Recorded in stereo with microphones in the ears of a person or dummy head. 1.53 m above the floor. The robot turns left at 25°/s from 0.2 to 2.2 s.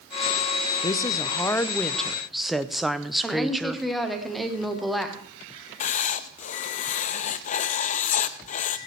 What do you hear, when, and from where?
0.8 s a woman speaking: 35° left, 0.5 m; by 3.9 s straight ahead, 0.5 m
3.2 s a woman speaking: centre (ahead or behind), 1.4 m
5.8 s writing: 45° left (ahead or behind), 0.5 m